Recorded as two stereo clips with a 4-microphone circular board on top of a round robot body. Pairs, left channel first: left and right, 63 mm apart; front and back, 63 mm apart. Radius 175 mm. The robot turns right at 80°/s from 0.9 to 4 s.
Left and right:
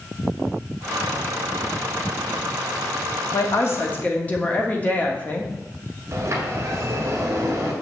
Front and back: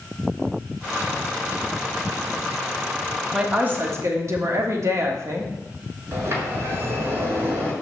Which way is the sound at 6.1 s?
130° right.